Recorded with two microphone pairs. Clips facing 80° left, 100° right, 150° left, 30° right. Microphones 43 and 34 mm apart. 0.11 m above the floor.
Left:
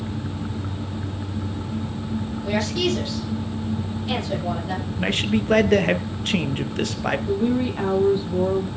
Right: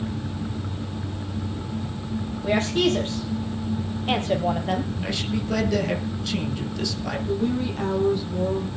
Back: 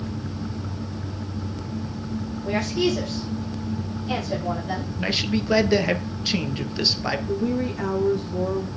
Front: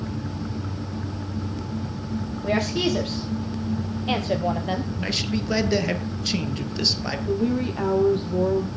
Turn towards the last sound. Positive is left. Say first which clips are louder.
# left 1 dB, front 5 dB
turn(degrees=10)